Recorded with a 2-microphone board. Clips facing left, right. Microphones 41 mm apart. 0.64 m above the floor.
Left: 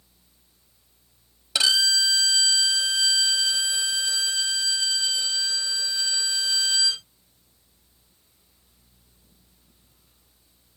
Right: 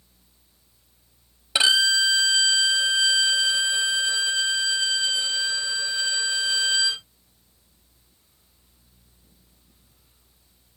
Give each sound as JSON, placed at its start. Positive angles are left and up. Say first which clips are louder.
{"t": 1.6, "sound": "a violin", "louder": "right 3 dB", "side_deg": -30}